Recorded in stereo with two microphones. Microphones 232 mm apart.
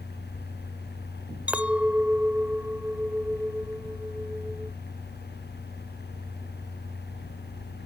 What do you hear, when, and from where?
1.5 s a clink: 5° right (ahead or behind)